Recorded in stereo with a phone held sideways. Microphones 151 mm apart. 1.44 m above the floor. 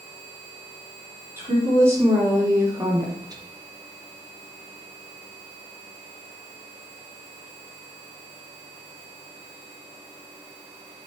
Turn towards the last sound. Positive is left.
turn(degrees=-30)  # may be behind; listen again after turning